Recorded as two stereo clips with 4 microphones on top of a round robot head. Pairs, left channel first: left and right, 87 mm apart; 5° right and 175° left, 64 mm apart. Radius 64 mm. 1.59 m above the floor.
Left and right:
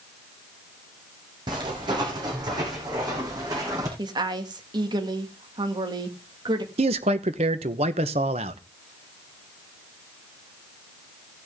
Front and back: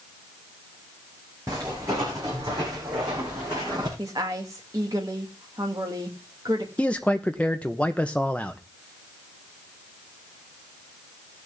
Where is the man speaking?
85° right, 1.0 m.